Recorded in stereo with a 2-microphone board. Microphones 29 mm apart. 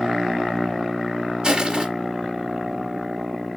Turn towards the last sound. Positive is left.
turn(degrees=-30)  # may be behind; listen again after turning